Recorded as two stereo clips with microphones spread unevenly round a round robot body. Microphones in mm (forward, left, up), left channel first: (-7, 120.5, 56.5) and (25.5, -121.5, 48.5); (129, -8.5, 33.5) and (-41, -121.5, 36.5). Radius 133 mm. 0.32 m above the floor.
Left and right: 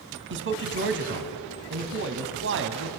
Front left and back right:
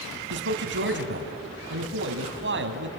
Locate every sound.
0.3 s a man speaking: 120° right, 2 m